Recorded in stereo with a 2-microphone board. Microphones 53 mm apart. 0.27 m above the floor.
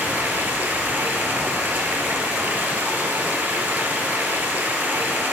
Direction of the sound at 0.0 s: 35° right (ahead or behind).